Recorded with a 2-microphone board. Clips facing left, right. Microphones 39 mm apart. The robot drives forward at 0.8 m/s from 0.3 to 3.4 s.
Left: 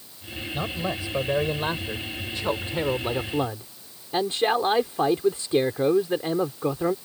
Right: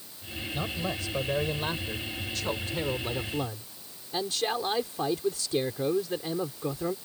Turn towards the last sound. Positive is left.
turn(degrees=30)  # may be behind; listen again after turning